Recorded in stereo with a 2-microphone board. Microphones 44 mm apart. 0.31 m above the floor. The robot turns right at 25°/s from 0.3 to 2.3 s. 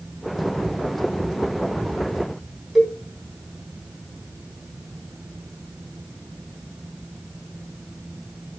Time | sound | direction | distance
2.8 | a cowbell | 5° right (ahead or behind) | 2.5 m